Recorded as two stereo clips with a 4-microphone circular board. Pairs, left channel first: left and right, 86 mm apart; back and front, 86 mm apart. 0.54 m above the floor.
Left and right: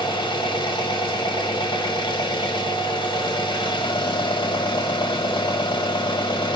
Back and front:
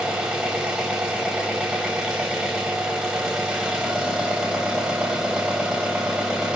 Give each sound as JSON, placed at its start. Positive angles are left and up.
{"t": 0.0, "sound": "an engine running", "azimuth_deg": 80, "distance_m": 1.2}